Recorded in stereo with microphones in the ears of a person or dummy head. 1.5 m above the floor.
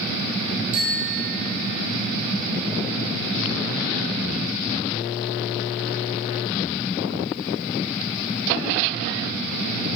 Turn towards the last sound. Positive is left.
turn(degrees=-60)  # may be behind; listen again after turning